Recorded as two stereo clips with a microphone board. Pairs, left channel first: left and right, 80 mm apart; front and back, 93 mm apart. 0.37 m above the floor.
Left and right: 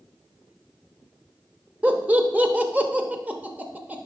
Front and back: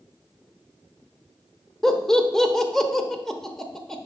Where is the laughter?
75° right, 0.8 m.